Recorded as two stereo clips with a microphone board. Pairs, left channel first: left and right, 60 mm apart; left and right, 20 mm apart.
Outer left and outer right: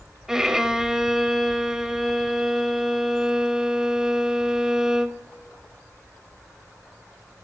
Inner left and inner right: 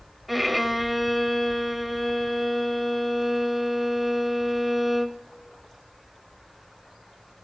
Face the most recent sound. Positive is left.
turn(degrees=-10)  # may be behind; listen again after turning